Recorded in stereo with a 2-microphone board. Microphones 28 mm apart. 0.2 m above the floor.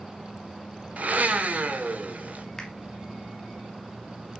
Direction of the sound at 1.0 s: 60° right (ahead or behind).